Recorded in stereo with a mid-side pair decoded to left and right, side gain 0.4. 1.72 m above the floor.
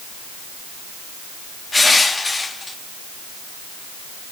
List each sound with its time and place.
1.7 s crushing: 30° left, 3 m